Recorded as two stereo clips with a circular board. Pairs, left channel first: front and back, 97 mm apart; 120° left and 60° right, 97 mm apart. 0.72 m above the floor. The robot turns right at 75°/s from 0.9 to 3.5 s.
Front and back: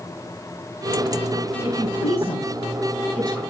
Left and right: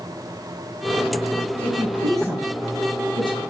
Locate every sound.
1.6 s a woman speaking: 45° right, 5.5 m; by 3.4 s 90° left, 5.5 m